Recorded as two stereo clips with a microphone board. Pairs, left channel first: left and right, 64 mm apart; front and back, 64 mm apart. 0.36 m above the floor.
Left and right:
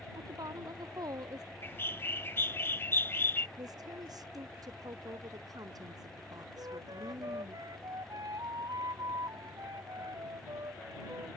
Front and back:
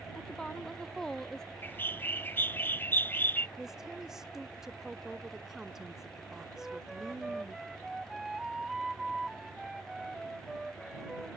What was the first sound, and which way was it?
A woman speaking, 80° right.